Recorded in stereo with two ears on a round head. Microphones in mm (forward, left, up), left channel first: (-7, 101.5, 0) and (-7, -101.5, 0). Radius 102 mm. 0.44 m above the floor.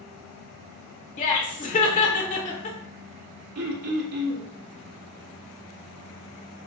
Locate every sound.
1.2 s laughter: 35° left (ahead or behind), 0.9 m
3.5 s throat clearing: 80° right, 0.9 m